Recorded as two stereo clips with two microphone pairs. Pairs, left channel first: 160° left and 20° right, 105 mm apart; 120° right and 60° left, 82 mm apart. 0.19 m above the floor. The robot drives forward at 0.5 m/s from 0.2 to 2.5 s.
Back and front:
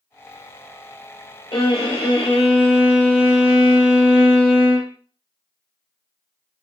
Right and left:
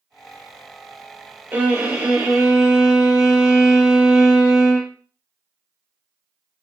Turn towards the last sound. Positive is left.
turn(degrees=145)